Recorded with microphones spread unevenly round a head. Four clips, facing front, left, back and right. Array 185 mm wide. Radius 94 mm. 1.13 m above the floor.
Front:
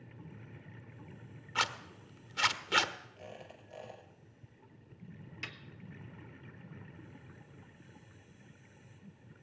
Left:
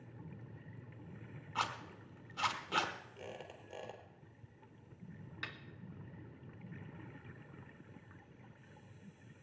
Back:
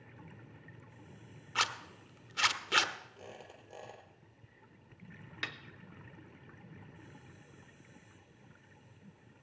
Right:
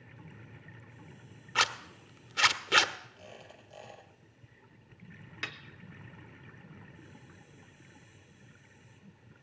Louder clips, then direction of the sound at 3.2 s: Left 2 dB, front 1 dB; 130° left.